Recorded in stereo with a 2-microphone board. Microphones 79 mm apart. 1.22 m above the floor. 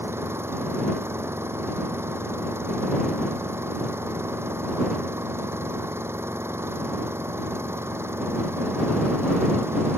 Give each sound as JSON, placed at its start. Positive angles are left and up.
{"t": 0.0, "sound": "an engine running", "side_deg": -35}